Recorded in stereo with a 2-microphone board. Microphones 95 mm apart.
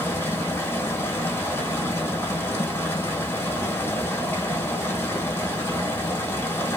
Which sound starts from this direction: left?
Running water, at 0.0 s.